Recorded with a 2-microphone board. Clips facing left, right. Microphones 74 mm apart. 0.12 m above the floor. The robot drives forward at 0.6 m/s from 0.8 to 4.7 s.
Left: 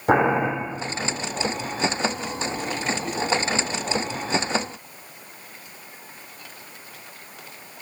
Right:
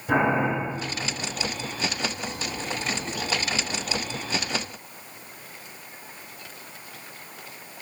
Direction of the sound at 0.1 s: 70° left (ahead or behind).